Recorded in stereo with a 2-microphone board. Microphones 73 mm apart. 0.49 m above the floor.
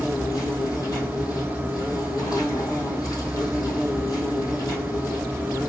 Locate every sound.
0.0 s an insect: 65° left (ahead or behind), 2.5 m